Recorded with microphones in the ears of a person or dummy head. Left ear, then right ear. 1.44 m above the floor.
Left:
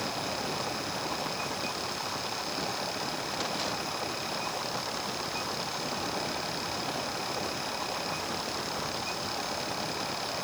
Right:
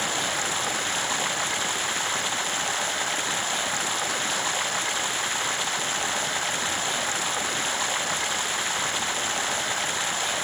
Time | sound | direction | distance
0.0 | running water | 65° right (ahead or behind) | ?